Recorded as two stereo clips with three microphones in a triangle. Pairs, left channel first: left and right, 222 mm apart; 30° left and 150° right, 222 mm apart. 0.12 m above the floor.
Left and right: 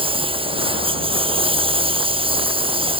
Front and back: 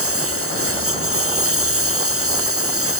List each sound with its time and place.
0.0 s a lawn mower: 155° right